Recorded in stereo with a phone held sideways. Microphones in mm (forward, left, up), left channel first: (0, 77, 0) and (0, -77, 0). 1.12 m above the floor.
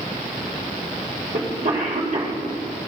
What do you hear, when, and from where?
1.3 s a cough: 60° right (ahead or behind), 3.5 m